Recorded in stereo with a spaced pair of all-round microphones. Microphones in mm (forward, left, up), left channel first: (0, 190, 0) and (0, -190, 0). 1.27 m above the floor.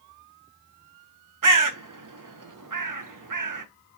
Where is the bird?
55° right (ahead or behind), 0.5 m.